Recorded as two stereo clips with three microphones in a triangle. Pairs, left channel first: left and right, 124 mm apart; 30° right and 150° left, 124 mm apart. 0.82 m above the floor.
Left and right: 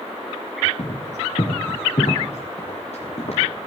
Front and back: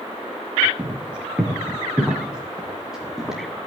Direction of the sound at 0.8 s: 70° left.